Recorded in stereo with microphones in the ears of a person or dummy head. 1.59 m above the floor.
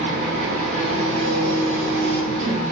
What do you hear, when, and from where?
0.0 s an engine running: 50° right (ahead or behind), 1.9 m